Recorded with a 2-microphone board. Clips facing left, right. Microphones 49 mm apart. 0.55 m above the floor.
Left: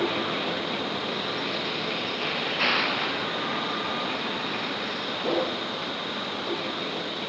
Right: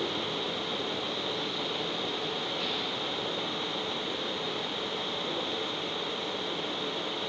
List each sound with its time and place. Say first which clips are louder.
0.0 s a vehicle: left 6 dB; 60° left (ahead or behind); by 7.3 s 75° left (ahead or behind)